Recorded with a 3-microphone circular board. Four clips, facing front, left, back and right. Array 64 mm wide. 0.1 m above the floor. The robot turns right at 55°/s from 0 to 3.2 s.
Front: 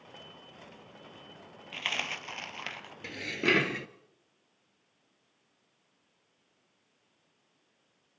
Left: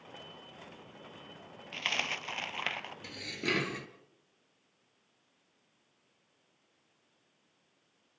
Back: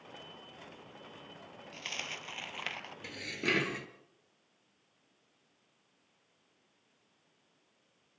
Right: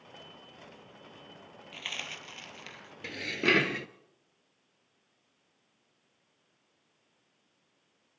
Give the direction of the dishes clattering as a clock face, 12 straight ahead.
2 o'clock.